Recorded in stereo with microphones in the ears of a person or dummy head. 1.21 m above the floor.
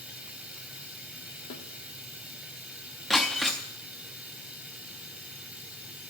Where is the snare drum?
65° left (ahead or behind), 1.7 m.